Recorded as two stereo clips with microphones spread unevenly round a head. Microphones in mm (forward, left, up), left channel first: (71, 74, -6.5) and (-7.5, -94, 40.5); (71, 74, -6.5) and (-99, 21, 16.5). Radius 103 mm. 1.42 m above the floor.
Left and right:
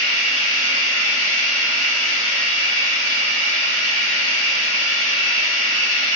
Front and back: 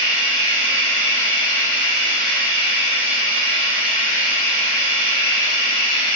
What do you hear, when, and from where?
0.0 s running water: 80° left, 1.2 m